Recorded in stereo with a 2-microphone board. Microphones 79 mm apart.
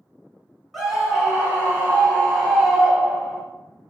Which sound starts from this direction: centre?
A scream, at 0.7 s.